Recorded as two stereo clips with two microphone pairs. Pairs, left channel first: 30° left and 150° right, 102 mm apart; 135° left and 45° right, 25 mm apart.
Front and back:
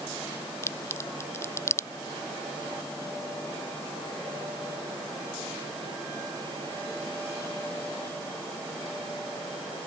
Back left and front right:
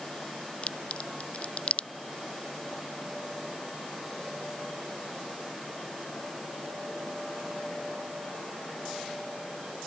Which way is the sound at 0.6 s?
100° left.